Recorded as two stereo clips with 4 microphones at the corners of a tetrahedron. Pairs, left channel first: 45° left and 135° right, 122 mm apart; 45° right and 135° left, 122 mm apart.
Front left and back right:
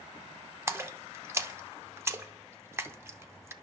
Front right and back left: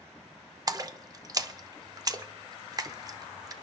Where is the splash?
175° left, 0.6 m.